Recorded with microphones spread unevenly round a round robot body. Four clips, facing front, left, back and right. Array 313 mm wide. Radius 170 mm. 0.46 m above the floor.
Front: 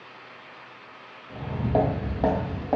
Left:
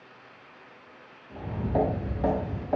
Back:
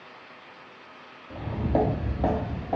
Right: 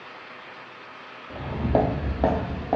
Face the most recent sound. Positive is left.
turn(degrees=-65)